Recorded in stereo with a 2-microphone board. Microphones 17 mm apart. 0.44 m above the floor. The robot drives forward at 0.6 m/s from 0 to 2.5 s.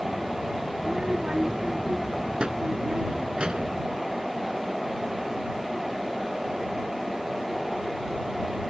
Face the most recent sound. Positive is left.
turn(degrees=-85)